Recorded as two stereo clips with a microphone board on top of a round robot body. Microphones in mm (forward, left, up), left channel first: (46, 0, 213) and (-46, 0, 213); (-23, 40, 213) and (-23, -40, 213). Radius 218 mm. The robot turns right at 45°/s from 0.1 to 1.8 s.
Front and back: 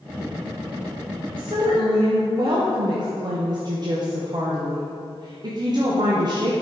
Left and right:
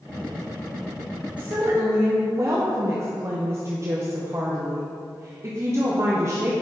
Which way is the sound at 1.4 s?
165° right.